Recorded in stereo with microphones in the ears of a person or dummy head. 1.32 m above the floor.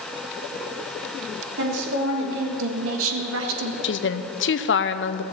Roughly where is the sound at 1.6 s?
Right.